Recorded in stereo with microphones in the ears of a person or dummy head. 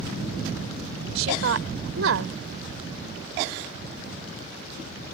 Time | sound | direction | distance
1.1 | a woman speaking | 85° right | ?